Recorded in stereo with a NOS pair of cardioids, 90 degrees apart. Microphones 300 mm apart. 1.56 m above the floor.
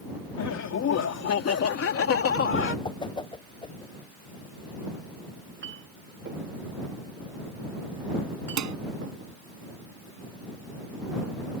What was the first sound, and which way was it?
Laughter, 65° left.